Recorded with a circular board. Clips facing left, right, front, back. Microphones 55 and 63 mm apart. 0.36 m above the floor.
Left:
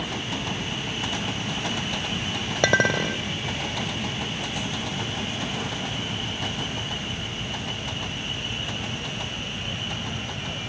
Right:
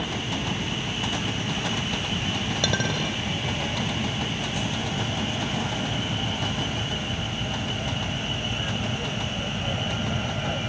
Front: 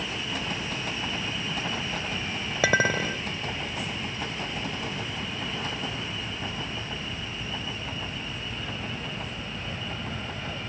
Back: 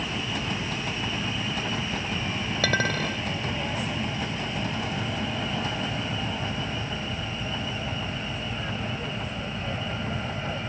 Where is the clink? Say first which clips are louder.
Left 8 dB, front 3 dB; 70° left.